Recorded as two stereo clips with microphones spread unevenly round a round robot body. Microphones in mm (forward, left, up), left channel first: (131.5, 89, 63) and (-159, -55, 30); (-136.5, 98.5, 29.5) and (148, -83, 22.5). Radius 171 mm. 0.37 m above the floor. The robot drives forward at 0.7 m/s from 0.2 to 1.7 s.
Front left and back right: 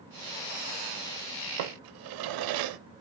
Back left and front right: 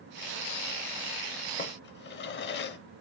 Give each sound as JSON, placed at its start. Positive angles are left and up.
{"t": 1.6, "sound": "a drawer", "azimuth_deg": -150, "distance_m": 0.6}